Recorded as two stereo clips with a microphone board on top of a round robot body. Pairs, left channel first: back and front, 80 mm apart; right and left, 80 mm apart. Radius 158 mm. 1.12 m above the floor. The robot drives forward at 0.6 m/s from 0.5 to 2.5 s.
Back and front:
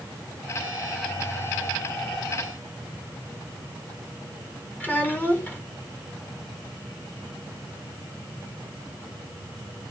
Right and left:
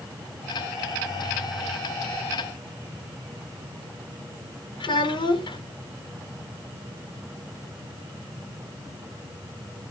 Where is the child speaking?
110° right, 3.5 m.